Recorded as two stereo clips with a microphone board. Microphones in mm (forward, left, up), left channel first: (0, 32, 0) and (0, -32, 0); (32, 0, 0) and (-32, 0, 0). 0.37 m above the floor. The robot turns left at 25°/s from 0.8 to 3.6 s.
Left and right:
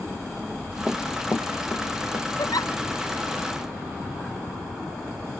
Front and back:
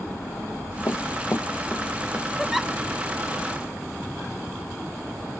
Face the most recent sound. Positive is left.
turn(degrees=65)